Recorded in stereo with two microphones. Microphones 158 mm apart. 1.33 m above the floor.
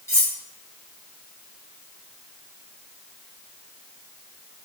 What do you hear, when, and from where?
0.1 s cutlery clinking: 15° left (ahead or behind), 0.9 m